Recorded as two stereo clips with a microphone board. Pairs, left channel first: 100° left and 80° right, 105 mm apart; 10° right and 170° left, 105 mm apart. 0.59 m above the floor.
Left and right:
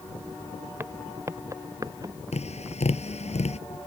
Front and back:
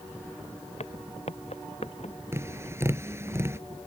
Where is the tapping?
105° left.